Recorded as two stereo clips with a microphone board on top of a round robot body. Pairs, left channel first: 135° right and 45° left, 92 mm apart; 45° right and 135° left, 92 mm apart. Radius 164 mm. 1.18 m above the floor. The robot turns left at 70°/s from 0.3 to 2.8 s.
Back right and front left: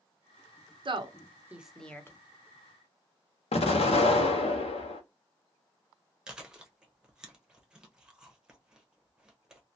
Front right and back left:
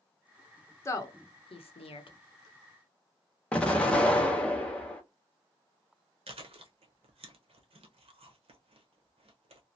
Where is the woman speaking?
15° left, 0.9 m; by 2.2 s 75° right, 0.9 m.